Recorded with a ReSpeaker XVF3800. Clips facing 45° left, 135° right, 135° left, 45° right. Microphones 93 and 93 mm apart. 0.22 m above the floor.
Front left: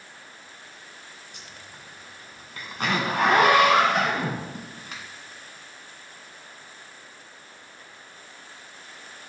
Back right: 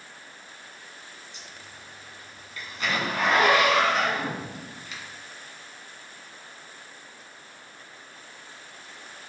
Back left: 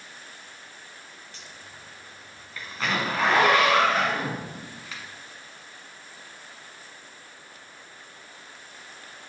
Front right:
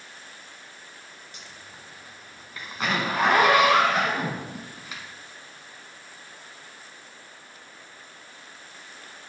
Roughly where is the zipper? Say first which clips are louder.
Even, even; ahead left.